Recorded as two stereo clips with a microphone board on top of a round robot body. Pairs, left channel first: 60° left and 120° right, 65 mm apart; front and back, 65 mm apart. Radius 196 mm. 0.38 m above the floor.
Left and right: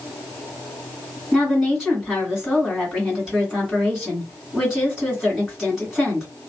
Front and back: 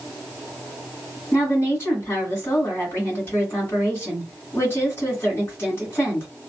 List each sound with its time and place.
1.3 s a woman speaking: 40° right, 1.8 m